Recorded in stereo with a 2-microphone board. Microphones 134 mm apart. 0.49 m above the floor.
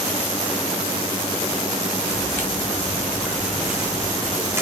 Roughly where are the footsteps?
Centre.